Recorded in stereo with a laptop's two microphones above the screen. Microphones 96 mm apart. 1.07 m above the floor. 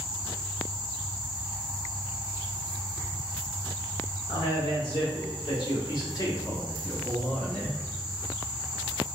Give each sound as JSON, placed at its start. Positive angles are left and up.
{"t": 4.3, "sound": "a man speaking", "side_deg": 60, "distance_m": 1.8}